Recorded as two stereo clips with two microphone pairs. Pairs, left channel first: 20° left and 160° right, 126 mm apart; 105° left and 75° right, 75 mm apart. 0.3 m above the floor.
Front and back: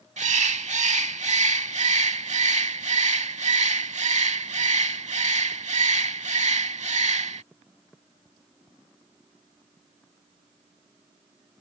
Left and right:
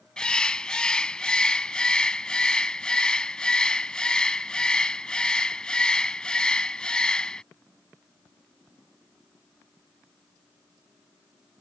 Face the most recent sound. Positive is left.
turn(degrees=180)